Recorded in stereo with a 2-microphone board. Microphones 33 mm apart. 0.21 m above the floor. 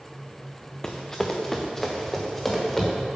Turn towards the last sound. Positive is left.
turn(degrees=10)  # may be behind; listen again after turning